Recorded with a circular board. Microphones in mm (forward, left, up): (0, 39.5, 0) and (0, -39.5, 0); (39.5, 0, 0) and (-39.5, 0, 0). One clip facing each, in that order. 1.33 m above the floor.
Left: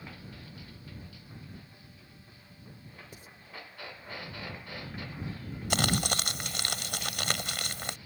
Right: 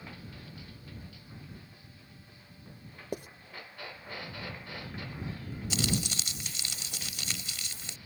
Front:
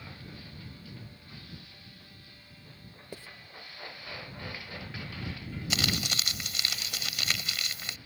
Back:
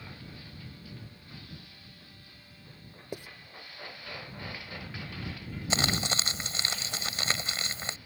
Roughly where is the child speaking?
I don't hear a child speaking.